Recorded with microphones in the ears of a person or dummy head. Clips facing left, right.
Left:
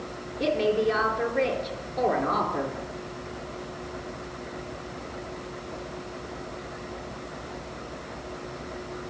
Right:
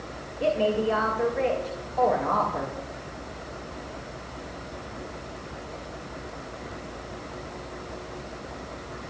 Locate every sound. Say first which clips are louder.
0.4 s a woman speaking: even; 40° left (ahead or behind), 4 m